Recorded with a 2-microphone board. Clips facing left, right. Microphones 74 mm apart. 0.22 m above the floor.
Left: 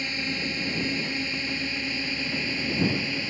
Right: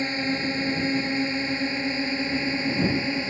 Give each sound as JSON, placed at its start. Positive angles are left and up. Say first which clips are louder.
{"t": 0.0, "sound": "a drone", "louder": "right 5 dB", "side_deg": -30}